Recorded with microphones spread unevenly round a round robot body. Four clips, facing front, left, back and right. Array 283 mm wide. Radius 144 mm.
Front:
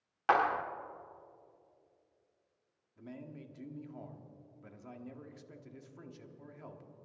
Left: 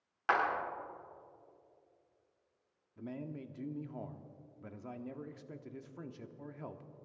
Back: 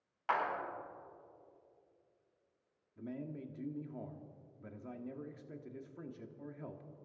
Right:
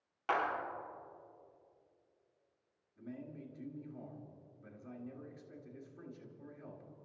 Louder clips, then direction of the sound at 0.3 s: Left 3 dB, front 6 dB; straight ahead.